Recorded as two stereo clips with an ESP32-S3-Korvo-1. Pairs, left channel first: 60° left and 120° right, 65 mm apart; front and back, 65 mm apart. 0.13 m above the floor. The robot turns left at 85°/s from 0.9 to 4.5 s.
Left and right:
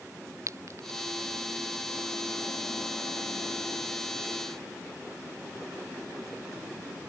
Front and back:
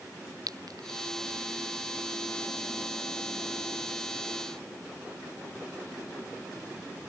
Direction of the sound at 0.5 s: 160° right.